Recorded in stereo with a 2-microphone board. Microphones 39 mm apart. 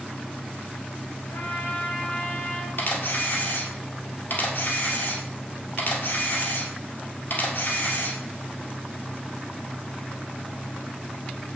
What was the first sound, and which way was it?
A trumpet, 60° left (ahead or behind).